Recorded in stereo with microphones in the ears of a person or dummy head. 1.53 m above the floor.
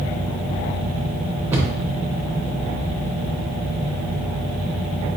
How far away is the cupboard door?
About 1.0 m.